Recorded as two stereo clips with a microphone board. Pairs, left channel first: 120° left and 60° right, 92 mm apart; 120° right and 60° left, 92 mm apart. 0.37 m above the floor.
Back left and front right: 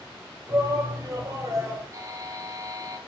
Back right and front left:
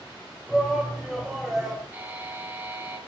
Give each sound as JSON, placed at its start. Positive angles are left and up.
{"t": 0.5, "sound": "a shout", "azimuth_deg": -30, "distance_m": 1.9}
{"t": 1.9, "sound": "a buzzer", "azimuth_deg": -10, "distance_m": 1.9}